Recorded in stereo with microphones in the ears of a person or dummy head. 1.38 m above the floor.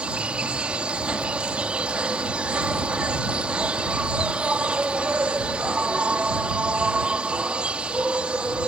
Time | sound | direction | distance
0.0 | an insect | 5° right (ahead or behind) | ?